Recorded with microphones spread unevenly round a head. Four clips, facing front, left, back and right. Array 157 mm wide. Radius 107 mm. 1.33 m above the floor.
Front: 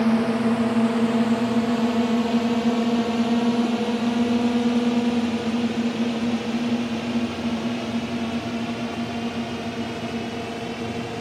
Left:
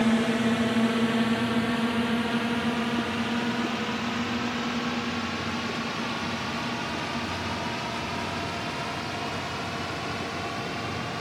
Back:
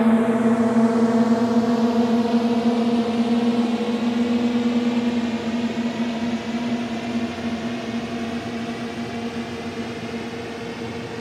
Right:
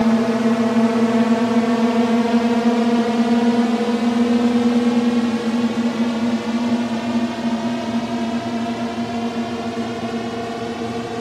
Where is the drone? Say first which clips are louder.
Right 7 dB, back 3 dB; 140° right; by 11.2 s 95° right.